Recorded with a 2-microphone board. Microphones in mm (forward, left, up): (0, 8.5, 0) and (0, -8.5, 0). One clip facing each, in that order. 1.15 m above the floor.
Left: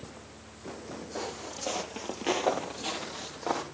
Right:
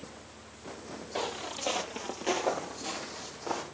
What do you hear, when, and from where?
1.1 s footsteps: 45° right (ahead or behind), 1.6 m; by 3.6 s 60° left (ahead or behind), 2 m